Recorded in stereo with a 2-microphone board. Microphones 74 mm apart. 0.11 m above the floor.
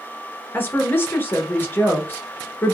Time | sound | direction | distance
0.5 | a woman speaking | 25° left (ahead or behind) | 1.2 m